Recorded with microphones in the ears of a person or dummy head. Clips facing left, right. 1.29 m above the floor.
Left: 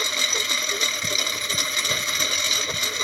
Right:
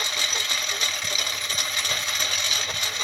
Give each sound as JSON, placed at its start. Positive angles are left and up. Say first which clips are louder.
{"t": 0.0, "sound": "a lawn mower", "louder": "left 4 dB", "side_deg": 70}